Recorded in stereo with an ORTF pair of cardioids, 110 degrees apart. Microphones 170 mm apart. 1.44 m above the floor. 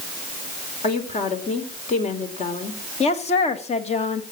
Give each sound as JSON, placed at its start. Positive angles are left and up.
{"t": 0.8, "sound": "a woman speaking", "azimuth_deg": 45, "distance_m": 4.0}
{"t": 3.0, "sound": "a woman speaking", "azimuth_deg": 40, "distance_m": 2.0}